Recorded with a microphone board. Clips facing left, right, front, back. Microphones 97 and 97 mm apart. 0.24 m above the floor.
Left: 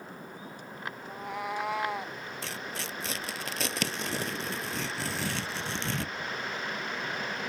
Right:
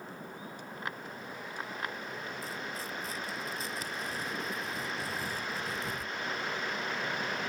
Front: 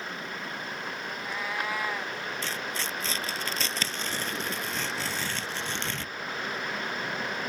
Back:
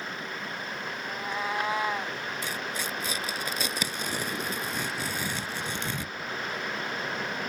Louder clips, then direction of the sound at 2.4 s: Left 1 dB, even; 105° left.